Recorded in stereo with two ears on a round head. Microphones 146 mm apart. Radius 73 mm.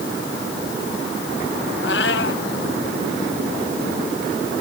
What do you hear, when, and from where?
1.8 s a cat meowing: 75° left (ahead or behind)